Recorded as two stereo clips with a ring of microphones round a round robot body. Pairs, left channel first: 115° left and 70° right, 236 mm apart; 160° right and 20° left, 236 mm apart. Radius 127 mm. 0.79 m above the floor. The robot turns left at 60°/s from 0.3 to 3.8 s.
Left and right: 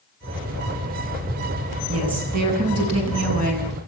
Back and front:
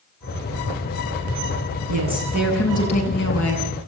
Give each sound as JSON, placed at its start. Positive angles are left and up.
{"t": 1.9, "sound": "a woman speaking", "azimuth_deg": -35, "distance_m": 9.0}